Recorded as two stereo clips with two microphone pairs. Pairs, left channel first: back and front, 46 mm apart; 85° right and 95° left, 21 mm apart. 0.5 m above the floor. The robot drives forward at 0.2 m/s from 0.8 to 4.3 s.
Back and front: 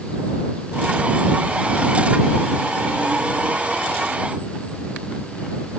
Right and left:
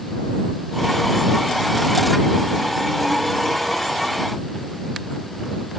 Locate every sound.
Only background noise.